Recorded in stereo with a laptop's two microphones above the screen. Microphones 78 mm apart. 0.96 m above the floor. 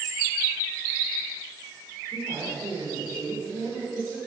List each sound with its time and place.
2.1 s a woman speaking: 60° right (ahead or behind), 4 m